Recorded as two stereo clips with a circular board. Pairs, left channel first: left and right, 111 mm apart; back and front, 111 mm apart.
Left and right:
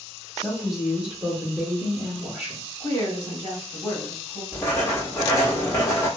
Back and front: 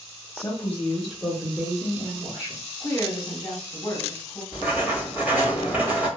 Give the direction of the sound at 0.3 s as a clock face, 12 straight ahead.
6 o'clock.